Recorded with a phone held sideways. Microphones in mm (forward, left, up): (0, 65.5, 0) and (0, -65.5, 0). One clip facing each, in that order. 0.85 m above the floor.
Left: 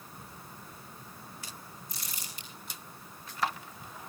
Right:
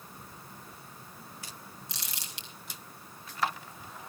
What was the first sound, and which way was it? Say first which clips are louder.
Crumpling: even; 85° right.